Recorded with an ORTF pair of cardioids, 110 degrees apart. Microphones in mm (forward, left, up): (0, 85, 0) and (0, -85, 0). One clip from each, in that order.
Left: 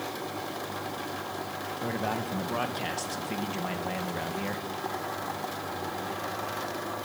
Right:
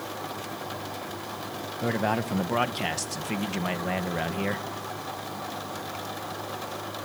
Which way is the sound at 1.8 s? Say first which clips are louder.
Right 5 dB; 35° right.